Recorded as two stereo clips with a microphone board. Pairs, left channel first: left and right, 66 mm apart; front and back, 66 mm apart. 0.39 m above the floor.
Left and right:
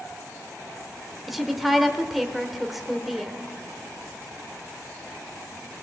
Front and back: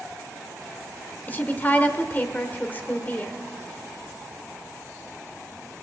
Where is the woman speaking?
5° right, 1.1 m.